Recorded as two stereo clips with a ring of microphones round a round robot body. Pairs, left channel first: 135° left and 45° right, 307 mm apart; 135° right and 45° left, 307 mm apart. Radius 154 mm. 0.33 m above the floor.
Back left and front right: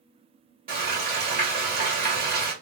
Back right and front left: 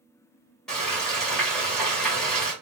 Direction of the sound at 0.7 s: 50° right.